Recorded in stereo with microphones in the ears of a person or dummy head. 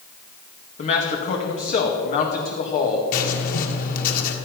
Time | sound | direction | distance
0.8 | a man speaking | 40° left (ahead or behind) | 2.5 m
3.1 | writing | 55° left (ahead or behind) | 1.7 m